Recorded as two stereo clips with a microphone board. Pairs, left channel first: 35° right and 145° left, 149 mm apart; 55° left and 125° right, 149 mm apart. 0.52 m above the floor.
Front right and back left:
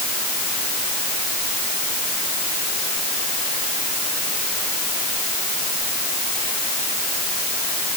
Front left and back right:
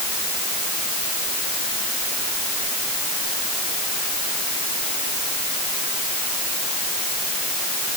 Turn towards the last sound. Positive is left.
No sound to turn to.